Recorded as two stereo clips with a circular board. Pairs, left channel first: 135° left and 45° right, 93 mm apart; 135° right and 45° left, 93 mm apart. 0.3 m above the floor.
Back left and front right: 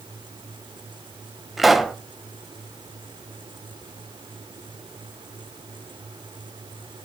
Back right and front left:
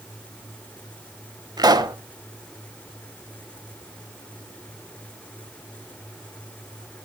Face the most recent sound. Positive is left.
turn(degrees=40)